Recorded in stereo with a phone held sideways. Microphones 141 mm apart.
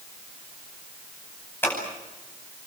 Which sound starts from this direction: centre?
Scissors, at 1.6 s.